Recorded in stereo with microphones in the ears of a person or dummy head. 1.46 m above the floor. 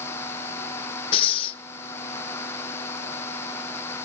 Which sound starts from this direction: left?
Breathing, at 1.1 s.